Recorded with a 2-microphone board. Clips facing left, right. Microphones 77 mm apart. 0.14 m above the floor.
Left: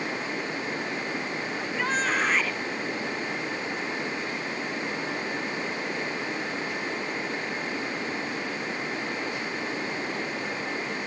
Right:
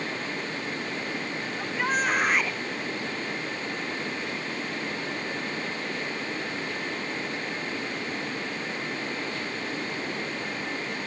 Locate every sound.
1.6 s a shout: 5° right (ahead or behind)